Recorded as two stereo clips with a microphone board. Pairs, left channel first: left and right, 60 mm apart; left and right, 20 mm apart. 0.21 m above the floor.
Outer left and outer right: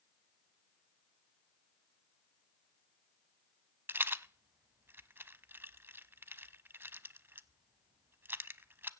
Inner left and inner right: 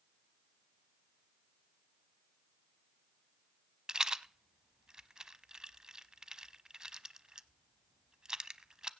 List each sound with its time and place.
3.9 s a rattle: 40° right (ahead or behind), 0.6 m